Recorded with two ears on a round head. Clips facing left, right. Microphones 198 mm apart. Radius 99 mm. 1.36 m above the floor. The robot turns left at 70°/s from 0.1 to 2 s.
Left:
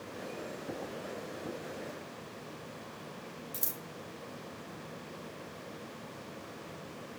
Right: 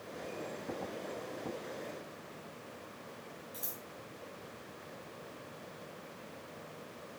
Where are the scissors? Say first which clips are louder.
Left 3 dB; 35° left (ahead or behind), 0.7 m.